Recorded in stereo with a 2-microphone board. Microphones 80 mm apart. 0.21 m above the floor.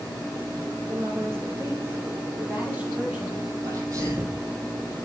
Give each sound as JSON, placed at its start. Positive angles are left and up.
{"t": 0.9, "sound": "a woman speaking", "side_deg": -35, "distance_m": 4.0}
{"t": 3.6, "sound": "a sneeze", "side_deg": -50, "distance_m": 5.5}